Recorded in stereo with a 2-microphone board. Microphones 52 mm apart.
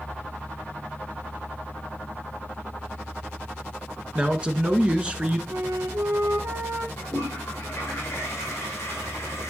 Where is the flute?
70° right (ahead or behind), 1.9 m.